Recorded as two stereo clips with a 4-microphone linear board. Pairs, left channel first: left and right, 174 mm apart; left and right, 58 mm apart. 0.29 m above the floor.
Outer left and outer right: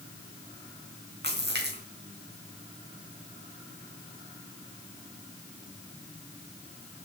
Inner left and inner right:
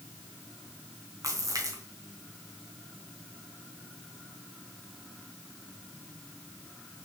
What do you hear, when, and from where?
1.2 s a splash: 70° right (ahead or behind), 4 m